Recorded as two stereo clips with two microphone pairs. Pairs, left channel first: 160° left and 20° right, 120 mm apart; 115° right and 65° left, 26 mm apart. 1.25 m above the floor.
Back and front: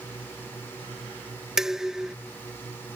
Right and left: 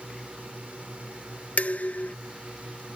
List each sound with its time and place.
0.0 s a drone: 85° left
1.6 s dishes clattering: 105° right